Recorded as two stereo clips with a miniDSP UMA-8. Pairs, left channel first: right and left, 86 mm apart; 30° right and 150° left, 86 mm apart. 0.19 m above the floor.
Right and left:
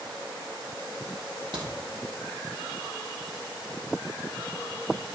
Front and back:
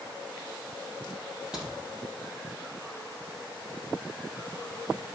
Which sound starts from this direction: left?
A crack, at 1.5 s.